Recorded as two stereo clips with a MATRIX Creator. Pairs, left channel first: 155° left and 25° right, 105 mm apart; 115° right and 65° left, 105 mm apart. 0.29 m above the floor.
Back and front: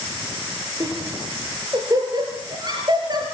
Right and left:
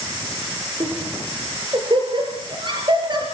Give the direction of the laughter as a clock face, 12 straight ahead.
11 o'clock.